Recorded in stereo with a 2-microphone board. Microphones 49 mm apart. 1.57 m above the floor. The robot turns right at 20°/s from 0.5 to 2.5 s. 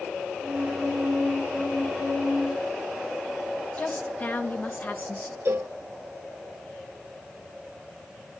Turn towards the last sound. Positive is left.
turn(degrees=-50)  # may be behind; listen again after turning